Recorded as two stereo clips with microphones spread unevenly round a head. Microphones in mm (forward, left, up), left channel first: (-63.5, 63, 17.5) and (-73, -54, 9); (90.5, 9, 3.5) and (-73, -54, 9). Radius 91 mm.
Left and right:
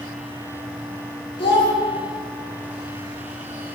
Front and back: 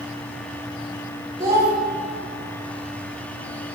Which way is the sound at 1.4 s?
125° left.